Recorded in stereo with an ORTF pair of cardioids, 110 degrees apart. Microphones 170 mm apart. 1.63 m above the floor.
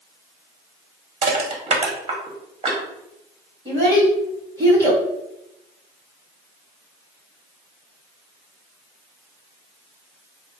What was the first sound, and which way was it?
Crushing, 35° right.